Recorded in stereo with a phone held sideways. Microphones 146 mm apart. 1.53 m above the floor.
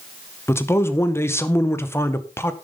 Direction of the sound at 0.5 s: 15° left (ahead or behind).